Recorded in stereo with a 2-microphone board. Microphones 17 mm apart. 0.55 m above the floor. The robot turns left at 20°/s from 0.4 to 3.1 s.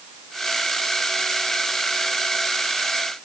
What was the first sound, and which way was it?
Only background noise.